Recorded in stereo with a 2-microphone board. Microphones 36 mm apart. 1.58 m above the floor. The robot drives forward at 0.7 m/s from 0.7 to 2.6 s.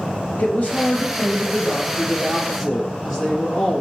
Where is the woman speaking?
50° left (ahead or behind), 0.7 m; by 3.8 s 15° left (ahead or behind), 1.7 m.